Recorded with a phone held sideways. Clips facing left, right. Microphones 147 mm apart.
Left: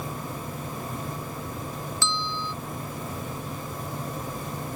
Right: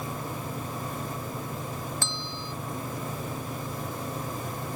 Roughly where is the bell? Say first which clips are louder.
Left 5 dB; right.